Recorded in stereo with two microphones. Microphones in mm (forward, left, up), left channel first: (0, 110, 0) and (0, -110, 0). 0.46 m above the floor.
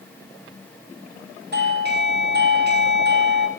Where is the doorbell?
50° right (ahead or behind), 5 m.